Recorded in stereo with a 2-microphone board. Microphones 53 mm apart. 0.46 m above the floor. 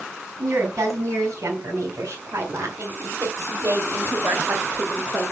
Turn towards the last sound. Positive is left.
turn(degrees=-45)  # may be behind; listen again after turning